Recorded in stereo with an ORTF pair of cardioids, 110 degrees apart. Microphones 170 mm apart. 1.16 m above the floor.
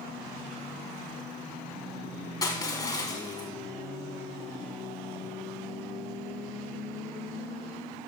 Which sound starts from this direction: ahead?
Crushing, at 2.4 s.